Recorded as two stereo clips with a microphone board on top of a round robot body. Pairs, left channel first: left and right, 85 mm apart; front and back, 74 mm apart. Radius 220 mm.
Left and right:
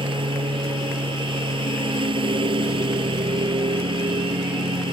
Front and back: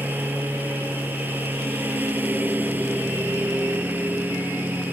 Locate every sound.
0.0 s a lawn mower: 110° right